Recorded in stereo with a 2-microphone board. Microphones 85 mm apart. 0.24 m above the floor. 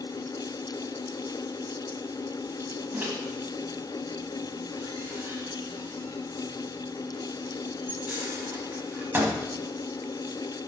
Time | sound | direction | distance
2.9 | a microwave | 25° right (ahead or behind) | 1.4 m